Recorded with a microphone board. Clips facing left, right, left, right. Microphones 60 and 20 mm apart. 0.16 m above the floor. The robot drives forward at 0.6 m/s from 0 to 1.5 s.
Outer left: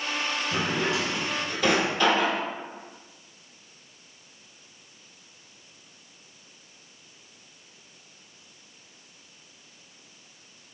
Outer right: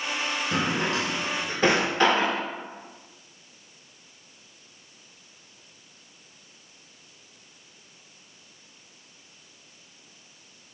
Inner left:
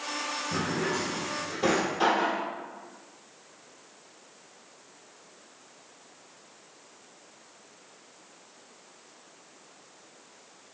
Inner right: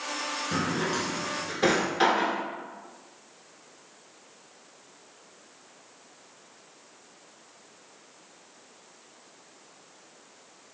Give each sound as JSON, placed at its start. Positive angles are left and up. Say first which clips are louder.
{"t": 0.5, "sound": "a drawer", "louder": "outer right 1 dB, inner right 1 dB", "side_deg": -50, "distance_m": 1.0}